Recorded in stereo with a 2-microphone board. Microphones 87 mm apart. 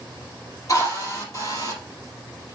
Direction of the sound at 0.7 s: 40° left (ahead or behind).